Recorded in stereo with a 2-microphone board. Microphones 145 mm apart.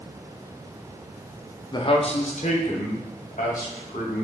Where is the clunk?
No clunk in this recording.